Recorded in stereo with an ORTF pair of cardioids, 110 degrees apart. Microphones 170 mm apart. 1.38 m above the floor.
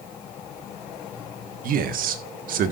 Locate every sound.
1.6 s a man speaking: 60° right, 1.7 m